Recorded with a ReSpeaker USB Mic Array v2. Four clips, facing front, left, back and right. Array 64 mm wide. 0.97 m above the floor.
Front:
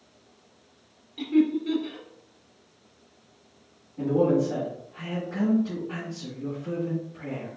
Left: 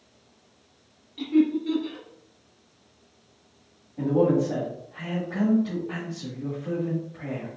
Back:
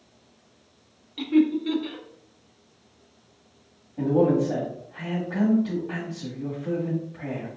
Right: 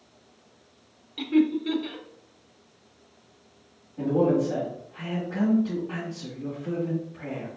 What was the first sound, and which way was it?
Laughter, 135° right.